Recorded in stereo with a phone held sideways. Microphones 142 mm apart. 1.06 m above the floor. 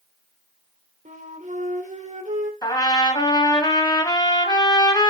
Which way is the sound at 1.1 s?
60° right (ahead or behind).